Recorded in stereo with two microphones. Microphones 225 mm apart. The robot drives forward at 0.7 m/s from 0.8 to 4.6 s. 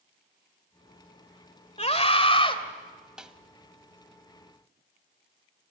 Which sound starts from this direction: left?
A scream, at 1.8 s.